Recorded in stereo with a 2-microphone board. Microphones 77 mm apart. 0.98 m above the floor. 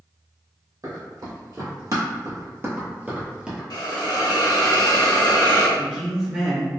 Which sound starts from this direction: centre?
A man speaking, at 5.8 s.